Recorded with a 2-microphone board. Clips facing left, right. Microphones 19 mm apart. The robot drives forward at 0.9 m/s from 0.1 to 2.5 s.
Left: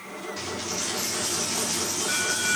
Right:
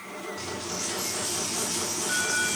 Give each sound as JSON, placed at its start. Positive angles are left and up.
{"t": 0.4, "sound": "a dropped coin", "side_deg": 65, "distance_m": 8.5}